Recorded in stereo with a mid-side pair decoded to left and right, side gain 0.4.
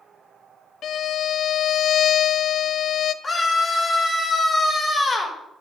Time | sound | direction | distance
0.8 | a violin | 65° left | 0.6 m
3.2 | a scream | 35° left | 4 m